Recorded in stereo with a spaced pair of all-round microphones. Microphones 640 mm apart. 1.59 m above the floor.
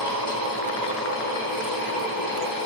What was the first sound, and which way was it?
A fan, 30° right (ahead or behind).